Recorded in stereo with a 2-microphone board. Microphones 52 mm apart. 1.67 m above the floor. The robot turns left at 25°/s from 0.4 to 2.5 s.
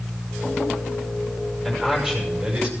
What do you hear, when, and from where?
1.6 s a man speaking: 5° right (ahead or behind), 6 m; by 2.7 s 30° right (ahead or behind), 6 m